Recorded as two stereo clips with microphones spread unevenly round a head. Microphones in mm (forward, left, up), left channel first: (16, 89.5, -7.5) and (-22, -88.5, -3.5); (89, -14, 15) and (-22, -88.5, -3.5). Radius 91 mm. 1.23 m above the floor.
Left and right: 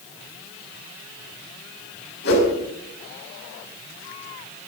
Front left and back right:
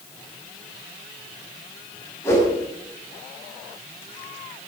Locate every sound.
2.2 s a whoosh: 110° left, 6 m